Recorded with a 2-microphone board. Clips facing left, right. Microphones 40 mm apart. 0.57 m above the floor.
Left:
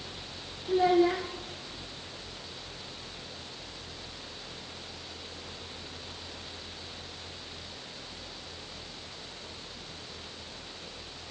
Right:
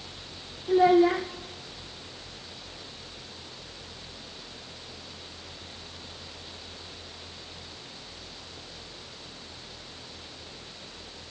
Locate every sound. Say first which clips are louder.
0.7 s a child speaking: right 4 dB; 25° right (ahead or behind), 1.1 m